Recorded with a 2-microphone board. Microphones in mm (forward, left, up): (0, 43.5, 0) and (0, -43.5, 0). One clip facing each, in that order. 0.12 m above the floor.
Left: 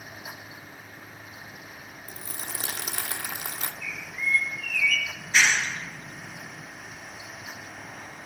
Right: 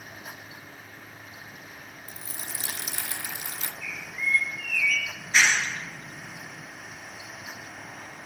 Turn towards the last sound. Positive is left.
turn(degrees=-5)  # may be behind; listen again after turning